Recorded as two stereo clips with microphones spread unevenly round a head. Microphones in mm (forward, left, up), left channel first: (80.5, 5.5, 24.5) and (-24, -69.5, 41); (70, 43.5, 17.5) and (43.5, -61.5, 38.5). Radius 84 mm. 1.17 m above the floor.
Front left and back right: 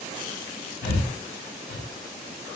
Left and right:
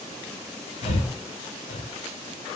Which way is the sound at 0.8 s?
45° left.